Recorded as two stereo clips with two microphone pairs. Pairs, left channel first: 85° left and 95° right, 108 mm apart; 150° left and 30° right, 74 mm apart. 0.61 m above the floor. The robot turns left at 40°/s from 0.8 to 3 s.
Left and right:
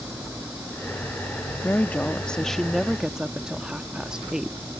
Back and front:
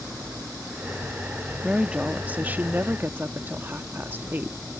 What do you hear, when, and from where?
1.6 s a woman speaking: 35° left; by 4.6 s 20° right